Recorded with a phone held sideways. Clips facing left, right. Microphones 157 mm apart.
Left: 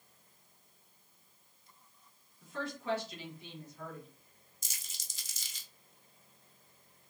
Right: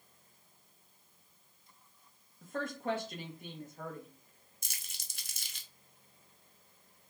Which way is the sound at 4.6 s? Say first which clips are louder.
Even; 60° right (ahead or behind).